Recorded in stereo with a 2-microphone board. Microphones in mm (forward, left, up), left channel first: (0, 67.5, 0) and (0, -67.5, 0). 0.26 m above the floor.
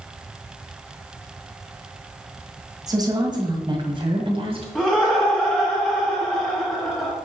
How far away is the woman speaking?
About 1.7 m.